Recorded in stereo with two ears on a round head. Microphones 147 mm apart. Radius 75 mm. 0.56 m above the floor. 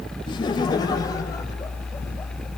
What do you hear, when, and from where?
0.3 s laughter: 25° left (ahead or behind), 2.5 m; by 2.5 s 15° left (ahead or behind), 3.5 m